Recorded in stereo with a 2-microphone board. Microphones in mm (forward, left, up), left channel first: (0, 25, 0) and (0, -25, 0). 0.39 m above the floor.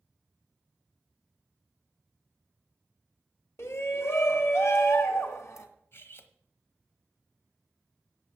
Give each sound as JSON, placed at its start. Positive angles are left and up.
{"t": 3.6, "sound": "a shout", "side_deg": 60, "distance_m": 1.5}
{"t": 5.9, "sound": "cutlery clinking", "side_deg": 50, "distance_m": 1.1}